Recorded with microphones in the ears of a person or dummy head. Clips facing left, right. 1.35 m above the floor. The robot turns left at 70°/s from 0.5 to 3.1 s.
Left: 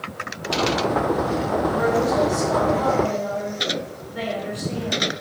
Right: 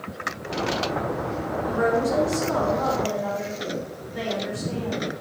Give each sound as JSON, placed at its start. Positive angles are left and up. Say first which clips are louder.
{"t": 1.7, "sound": "a woman speaking", "louder": "even", "azimuth_deg": -70, "distance_m": 3.5}